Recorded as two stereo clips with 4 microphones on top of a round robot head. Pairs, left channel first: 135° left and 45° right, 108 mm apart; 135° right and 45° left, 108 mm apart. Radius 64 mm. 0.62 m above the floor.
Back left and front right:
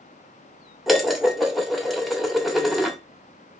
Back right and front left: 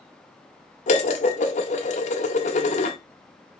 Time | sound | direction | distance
0.9 | dishes clattering | 135° right | 1.5 m